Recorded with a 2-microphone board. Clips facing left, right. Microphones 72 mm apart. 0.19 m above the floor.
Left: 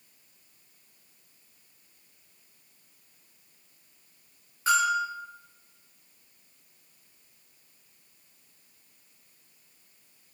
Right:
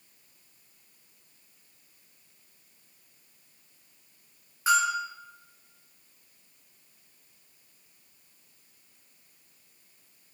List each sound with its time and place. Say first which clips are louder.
4.7 s a bell: left 1 dB; 10° right (ahead or behind), 2.0 m